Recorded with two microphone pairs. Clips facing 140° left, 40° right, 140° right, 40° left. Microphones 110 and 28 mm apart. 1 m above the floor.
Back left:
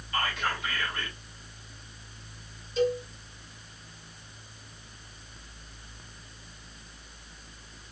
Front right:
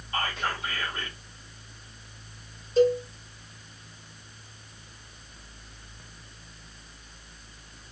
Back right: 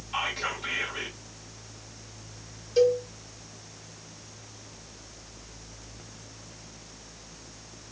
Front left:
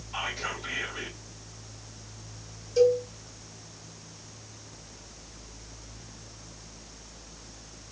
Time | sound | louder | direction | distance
0.1 | whispering | even, back right 3 dB | 95° right | 2 m
2.8 | a cowbell | front right 6 dB, even | 85° right | 1.8 m